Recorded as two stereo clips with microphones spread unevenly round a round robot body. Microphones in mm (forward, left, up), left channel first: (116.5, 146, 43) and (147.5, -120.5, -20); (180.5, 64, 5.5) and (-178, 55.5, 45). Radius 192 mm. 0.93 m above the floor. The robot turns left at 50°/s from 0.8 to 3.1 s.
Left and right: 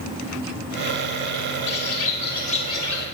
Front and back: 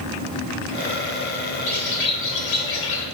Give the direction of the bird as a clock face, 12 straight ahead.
10 o'clock.